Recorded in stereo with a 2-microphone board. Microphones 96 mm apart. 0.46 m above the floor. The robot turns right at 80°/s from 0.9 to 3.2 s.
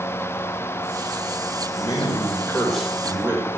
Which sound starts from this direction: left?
A man speaking, at 1.8 s.